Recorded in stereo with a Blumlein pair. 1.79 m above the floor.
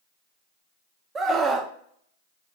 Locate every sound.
1.1 s a scream: 15° right, 0.7 m